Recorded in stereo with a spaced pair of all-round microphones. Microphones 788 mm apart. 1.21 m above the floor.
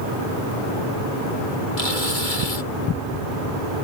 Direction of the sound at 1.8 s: 80° left.